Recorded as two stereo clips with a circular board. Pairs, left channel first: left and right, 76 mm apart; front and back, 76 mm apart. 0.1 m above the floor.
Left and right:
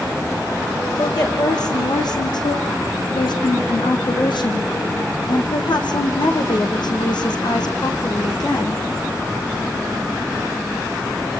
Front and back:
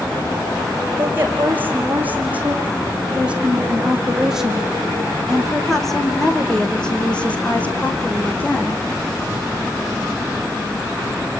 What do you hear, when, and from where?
1.0 s a woman speaking: 115° left, 5.5 m; by 8.8 s 65° left, 4.5 m